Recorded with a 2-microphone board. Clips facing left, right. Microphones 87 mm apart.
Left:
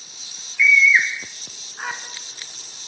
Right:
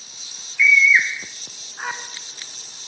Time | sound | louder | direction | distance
0.6 | a scream | even | centre (ahead or behind) | 2.5 m